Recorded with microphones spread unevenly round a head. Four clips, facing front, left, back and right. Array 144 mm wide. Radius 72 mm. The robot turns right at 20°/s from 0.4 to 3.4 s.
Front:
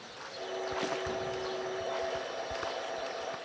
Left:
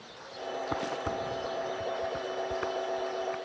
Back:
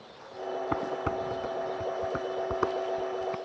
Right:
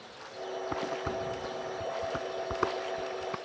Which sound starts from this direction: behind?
Dishes clattering, at 0.7 s.